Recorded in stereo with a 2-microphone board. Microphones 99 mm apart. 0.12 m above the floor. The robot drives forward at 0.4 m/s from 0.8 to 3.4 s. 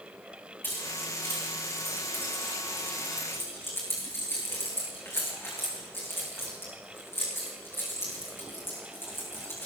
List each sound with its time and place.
0.6 s keys jangling: 20° left (ahead or behind), 7 m; by 9.7 s 25° left (ahead or behind), 6 m